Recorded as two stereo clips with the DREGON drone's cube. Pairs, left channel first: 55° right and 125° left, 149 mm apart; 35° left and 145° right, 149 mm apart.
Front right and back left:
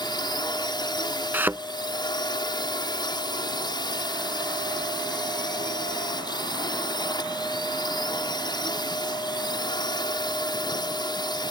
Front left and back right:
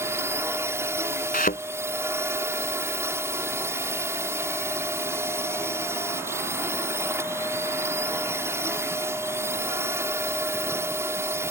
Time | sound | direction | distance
0.0 | a drone | 85° right | ?
1.3 | a thud | 50° left | ?